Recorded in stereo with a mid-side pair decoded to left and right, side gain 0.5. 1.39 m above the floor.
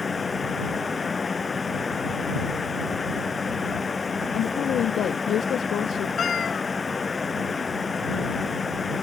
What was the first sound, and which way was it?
A fan, 25° left.